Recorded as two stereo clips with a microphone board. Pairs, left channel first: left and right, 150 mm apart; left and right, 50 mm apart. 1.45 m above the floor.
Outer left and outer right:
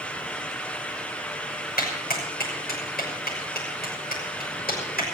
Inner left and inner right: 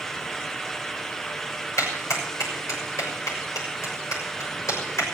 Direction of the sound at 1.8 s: 85° left.